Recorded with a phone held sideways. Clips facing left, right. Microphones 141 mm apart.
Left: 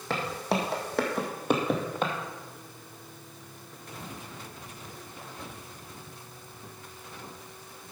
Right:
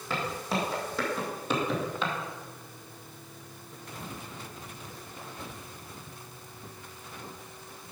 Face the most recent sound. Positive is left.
turn(degrees=50)  # may be behind; listen again after turning